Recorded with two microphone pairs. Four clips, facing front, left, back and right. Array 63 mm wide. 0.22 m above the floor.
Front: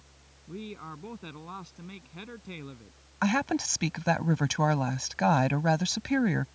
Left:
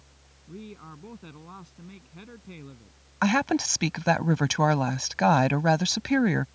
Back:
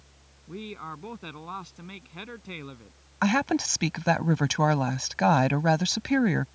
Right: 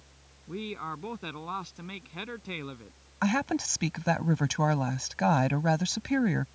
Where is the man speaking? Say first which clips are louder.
Right 7 dB, back 3 dB; 120° right.